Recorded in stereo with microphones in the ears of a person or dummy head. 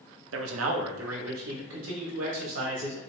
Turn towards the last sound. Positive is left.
turn(degrees=-60)  # may be behind; listen again after turning